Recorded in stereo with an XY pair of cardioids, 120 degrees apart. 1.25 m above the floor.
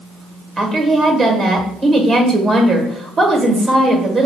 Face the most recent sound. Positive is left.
turn(degrees=-40)